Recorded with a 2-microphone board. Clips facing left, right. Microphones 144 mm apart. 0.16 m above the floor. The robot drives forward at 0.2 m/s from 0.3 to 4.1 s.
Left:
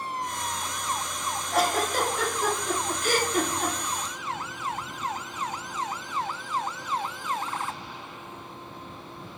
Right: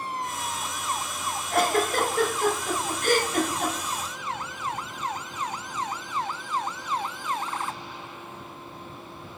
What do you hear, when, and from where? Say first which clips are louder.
1.5 s a giggle: right 2 dB; 60° right (ahead or behind), 0.8 m; by 3.7 s 45° right (ahead or behind), 0.9 m